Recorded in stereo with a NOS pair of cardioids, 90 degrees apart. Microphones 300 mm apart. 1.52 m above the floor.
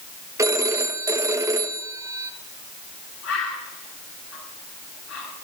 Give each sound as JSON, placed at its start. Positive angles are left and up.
{"t": 0.4, "sound": "a phone ringing", "azimuth_deg": -10, "distance_m": 1.3}
{"t": 3.2, "sound": "a bird", "azimuth_deg": 60, "distance_m": 8.0}